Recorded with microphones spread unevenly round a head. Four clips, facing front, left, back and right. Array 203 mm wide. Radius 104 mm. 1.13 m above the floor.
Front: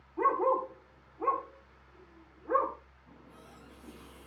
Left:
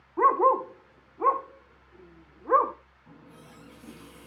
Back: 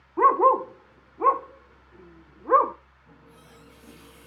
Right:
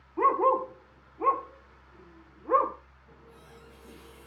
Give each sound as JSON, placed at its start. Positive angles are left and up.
{"t": 0.2, "sound": "a dog barking", "azimuth_deg": 170, "distance_m": 0.9}
{"t": 3.1, "sound": "a running tap", "azimuth_deg": 95, "distance_m": 6.5}